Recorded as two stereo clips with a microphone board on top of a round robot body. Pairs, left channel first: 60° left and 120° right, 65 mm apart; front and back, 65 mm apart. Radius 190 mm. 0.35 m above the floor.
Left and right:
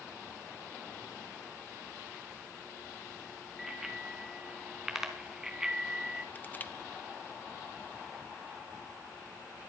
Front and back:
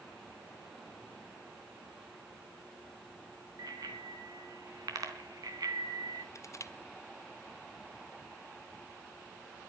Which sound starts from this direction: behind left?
A bicycle bell, at 3.6 s.